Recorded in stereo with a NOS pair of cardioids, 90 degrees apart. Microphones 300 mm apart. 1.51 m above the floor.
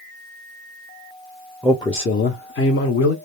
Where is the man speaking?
Straight ahead, 0.5 m; by 3.1 s 60° left, 1.0 m.